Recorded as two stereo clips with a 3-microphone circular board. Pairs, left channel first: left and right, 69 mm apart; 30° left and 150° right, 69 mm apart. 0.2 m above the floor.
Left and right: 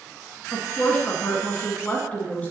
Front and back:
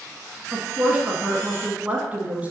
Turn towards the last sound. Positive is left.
turn(degrees=150)